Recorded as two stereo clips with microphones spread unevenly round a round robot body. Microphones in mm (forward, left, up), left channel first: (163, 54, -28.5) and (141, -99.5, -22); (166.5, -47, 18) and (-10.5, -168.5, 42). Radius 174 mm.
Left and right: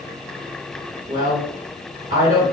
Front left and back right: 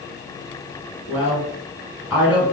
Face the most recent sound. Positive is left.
turn(degrees=-55)